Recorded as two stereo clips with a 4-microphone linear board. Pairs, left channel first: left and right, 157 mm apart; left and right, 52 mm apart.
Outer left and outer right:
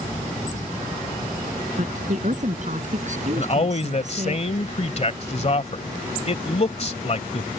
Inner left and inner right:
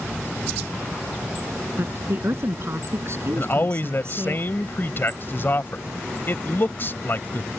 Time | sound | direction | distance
1.8 | a woman speaking | 55° right (ahead or behind) | ?
3.4 | a man speaking | 45° left (ahead or behind) | ?